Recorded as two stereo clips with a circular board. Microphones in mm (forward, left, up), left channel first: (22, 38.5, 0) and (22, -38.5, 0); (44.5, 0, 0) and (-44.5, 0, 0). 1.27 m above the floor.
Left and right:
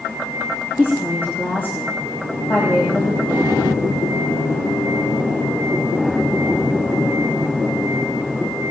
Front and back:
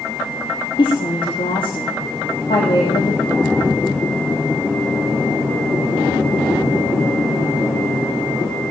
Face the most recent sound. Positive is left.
turn(degrees=25)